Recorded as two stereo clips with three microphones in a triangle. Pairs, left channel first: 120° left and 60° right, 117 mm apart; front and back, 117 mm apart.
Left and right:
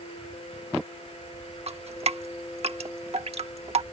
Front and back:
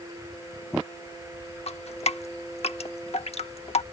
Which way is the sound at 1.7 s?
30° right.